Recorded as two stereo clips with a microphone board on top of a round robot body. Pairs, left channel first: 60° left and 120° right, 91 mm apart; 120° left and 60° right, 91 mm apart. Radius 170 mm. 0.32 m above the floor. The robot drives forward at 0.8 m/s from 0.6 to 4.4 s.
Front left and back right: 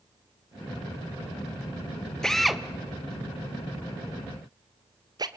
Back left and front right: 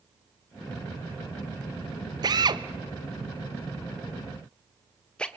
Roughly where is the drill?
Ahead right.